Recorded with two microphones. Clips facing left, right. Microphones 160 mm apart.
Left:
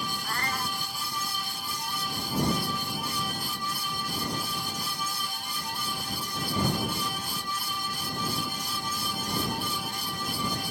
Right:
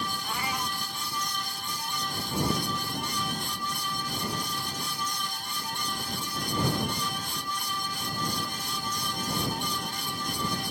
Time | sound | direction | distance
0.2 | a cat meowing | 5° right (ahead or behind) | ?